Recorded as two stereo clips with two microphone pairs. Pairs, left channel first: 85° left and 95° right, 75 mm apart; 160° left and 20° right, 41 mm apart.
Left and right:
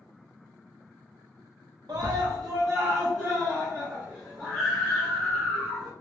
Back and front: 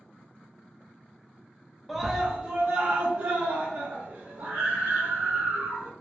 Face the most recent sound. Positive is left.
turn(degrees=-10)